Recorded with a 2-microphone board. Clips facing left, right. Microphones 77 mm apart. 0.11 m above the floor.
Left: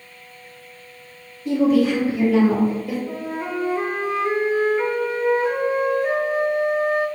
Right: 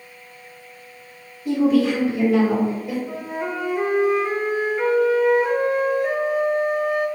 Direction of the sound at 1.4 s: 10° right (ahead or behind).